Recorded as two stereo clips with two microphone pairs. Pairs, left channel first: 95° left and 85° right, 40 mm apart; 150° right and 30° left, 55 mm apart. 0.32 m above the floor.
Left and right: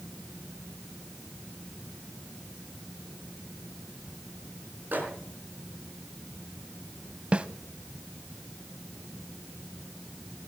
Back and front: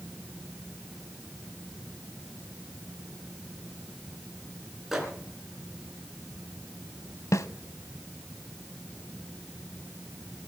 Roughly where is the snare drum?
Behind right.